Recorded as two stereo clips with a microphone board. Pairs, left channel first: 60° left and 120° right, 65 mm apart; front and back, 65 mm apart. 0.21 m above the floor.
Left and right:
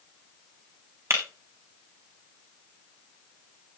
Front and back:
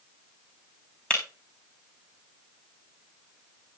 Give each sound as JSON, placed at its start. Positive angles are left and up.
{"t": 1.1, "sound": "breaking glass", "azimuth_deg": -70, "distance_m": 6.0}